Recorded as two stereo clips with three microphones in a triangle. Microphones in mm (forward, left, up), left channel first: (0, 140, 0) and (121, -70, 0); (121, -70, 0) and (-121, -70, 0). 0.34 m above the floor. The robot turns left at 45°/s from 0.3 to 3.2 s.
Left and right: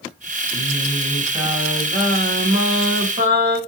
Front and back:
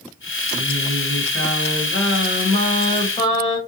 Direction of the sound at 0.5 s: 55° left.